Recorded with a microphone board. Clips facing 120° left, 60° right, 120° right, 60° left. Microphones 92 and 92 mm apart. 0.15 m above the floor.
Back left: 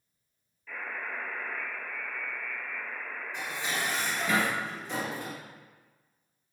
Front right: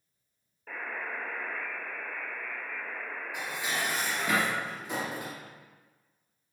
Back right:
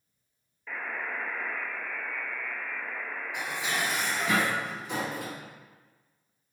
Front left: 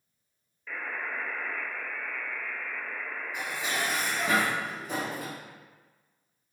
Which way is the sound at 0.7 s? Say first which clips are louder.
Front right 1 dB, even; 40° right.